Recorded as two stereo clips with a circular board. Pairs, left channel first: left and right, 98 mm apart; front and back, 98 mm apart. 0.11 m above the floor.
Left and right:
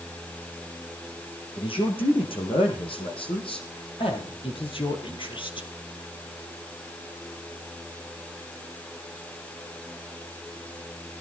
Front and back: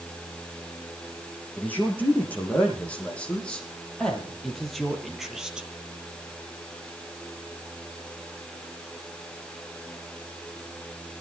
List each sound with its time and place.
1.6 s a man speaking: 70° left, 7 m; by 5.7 s 100° left, 3 m